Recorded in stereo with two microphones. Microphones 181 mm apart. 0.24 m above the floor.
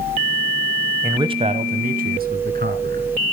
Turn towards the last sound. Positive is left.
turn(degrees=-60)  # may be behind; listen again after turning